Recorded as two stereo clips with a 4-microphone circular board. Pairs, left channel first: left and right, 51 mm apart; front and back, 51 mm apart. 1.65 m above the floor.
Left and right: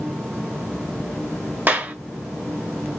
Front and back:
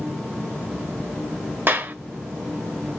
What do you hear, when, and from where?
1.7 s a clap: 140° right, 0.7 m